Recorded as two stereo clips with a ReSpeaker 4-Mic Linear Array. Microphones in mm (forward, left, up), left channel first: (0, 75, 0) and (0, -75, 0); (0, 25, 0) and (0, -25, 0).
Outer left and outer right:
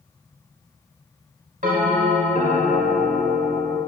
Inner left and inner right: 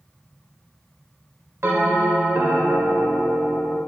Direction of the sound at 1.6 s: 55° right (ahead or behind).